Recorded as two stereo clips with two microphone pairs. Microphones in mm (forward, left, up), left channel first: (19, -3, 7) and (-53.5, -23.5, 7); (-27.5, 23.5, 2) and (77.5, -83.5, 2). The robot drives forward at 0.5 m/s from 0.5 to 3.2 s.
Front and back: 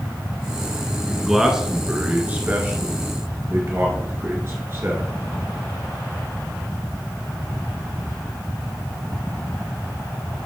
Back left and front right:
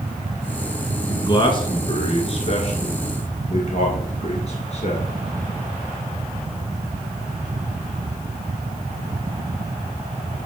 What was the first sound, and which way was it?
A man speaking, 105° left.